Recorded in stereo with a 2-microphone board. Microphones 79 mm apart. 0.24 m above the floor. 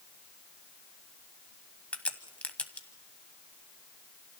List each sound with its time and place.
1.9 s a crack: 15° left (ahead or behind), 1.2 m